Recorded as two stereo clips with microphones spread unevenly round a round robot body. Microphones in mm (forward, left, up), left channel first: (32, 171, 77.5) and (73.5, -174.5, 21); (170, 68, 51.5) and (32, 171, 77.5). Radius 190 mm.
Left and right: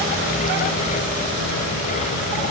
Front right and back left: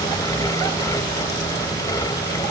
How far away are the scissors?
I don't hear scissors.